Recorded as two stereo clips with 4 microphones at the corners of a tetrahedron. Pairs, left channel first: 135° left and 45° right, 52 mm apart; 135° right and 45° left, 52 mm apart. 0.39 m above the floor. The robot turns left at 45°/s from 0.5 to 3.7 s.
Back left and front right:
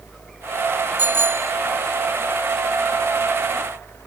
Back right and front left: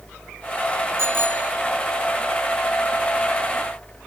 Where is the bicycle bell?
10° left; by 1.5 s 15° right.